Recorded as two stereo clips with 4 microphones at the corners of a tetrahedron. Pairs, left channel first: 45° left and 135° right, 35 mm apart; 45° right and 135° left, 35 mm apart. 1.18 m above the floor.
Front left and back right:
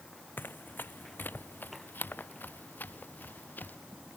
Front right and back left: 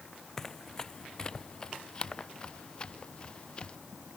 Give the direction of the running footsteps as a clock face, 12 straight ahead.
11 o'clock.